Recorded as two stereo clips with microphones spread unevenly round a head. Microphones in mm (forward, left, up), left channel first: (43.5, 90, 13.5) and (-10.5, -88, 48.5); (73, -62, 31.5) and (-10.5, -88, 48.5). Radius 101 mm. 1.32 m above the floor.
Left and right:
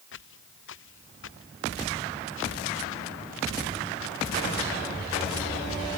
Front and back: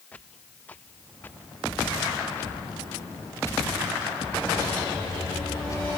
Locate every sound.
0.1 s footsteps: 100° left; by 6.0 s 85° left